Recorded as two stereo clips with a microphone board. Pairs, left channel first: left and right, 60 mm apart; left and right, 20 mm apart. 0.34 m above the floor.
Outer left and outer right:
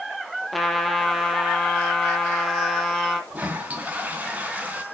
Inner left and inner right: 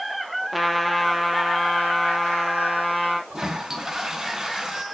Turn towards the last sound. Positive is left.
turn(degrees=-25)  # may be behind; listen again after turning